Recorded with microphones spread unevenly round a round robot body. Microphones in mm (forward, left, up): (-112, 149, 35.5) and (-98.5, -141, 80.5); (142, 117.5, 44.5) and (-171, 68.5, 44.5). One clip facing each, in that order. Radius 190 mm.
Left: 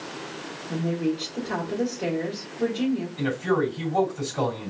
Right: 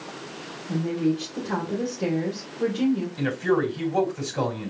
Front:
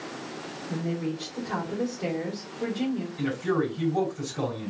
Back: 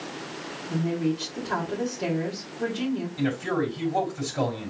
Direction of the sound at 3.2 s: 135° right.